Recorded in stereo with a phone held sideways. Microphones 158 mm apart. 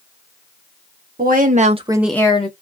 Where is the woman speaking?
60° right (ahead or behind), 1.1 m; by 2.5 s 45° left (ahead or behind), 0.7 m.